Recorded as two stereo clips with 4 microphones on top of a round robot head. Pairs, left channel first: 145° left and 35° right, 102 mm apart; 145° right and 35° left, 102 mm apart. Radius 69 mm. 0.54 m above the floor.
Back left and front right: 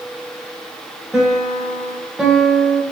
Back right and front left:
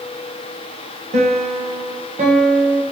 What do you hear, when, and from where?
1.1 s a piano: 50° left, 0.7 m